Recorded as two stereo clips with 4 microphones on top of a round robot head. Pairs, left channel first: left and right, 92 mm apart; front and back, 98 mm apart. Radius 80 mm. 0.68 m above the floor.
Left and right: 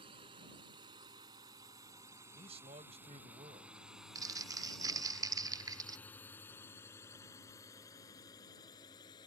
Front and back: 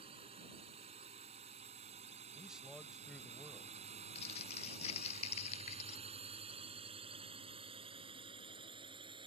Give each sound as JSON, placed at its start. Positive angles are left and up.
{"t": 0.0, "sound": "a drone", "azimuth_deg": -135}
{"t": 2.4, "sound": "a man speaking", "azimuth_deg": -90}
{"t": 4.2, "sound": "crumpling", "azimuth_deg": -40}